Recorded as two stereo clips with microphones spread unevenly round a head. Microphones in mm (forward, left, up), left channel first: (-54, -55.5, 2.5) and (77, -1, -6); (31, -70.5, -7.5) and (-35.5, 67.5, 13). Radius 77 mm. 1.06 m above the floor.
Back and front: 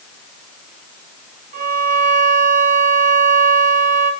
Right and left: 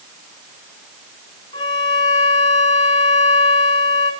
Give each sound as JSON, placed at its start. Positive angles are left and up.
{"t": 1.5, "sound": "a violin", "azimuth_deg": 0, "distance_m": 1.1}